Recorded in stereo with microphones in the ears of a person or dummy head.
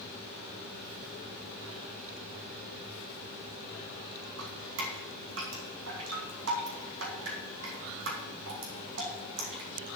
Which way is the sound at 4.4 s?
70° right (ahead or behind).